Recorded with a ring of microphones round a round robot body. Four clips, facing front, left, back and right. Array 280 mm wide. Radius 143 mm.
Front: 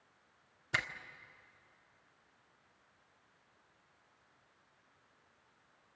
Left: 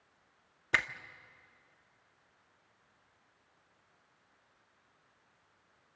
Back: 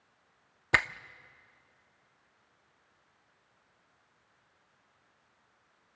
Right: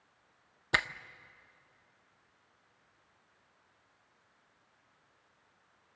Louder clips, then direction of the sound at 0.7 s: Right 1 dB, back 9 dB; 165° right.